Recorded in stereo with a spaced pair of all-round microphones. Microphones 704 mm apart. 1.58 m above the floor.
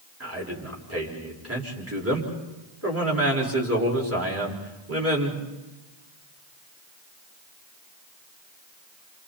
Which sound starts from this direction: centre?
A man speaking, at 0.2 s.